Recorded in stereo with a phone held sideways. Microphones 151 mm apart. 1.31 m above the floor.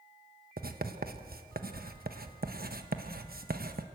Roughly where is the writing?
Right.